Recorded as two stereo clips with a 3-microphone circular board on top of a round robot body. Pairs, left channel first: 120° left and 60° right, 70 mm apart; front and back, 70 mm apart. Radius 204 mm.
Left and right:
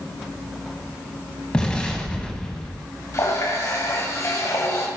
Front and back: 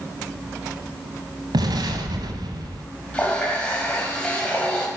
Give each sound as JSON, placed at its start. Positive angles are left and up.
{"t": 1.5, "sound": "an explosion", "azimuth_deg": -165, "distance_m": 1.1}
{"t": 3.1, "sound": "a running tap", "azimuth_deg": 75, "distance_m": 3.0}